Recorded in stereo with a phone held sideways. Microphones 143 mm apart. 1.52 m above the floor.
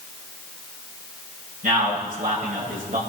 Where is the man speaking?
80° right, 7.5 m; by 3.0 s 75° right (ahead or behind), 7 m.